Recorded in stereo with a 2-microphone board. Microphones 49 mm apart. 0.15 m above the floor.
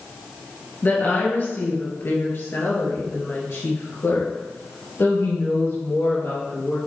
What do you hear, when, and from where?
0.8 s a woman speaking: 35° left (ahead or behind), 2.5 m; by 6.8 s 60° left (ahead or behind), 3.5 m